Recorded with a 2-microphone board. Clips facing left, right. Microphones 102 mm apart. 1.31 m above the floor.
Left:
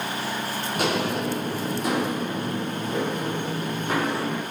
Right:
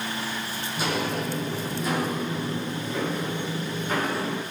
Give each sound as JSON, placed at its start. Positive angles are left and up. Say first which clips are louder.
{"t": 0.8, "sound": "footsteps", "louder": "left 2 dB", "side_deg": 65, "distance_m": 2.5}